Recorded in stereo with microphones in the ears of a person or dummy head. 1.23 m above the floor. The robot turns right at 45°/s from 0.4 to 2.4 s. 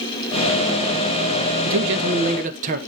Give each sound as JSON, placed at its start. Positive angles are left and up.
{"t": 1.6, "sound": "a man speaking", "azimuth_deg": -80, "distance_m": 1.5}